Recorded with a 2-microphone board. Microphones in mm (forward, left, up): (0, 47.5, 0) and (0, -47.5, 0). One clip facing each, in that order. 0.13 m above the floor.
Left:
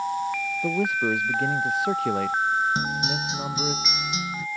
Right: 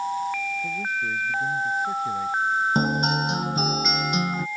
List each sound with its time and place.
0.6 s a man speaking: 75° left (ahead or behind); by 3.8 s 70° left (ahead or behind)
2.8 s a guitar: 50° right (ahead or behind)